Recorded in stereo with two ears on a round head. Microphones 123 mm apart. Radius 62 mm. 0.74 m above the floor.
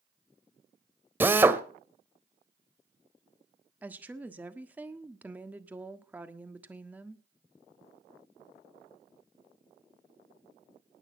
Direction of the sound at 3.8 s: 10° right (ahead or behind).